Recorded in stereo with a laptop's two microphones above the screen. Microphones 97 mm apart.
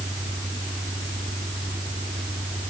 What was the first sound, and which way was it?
A fan, 60° right (ahead or behind).